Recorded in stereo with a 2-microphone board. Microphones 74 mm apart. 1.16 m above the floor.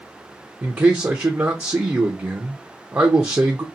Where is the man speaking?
35° right (ahead or behind), 0.5 m.